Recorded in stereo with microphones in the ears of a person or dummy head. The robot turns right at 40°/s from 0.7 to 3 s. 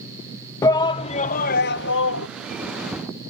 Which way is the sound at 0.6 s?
20° left.